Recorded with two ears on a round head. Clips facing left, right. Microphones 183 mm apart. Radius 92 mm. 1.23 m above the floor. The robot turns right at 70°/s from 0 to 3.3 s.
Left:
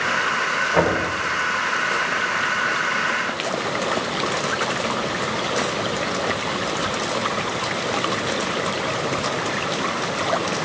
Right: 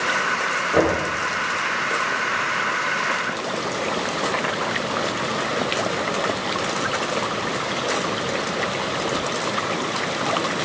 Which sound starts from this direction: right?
Knocking, at 0.7 s.